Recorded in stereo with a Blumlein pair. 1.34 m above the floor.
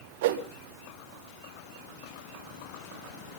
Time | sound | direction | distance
0.2 | a whoosh | 55° right | 1.4 m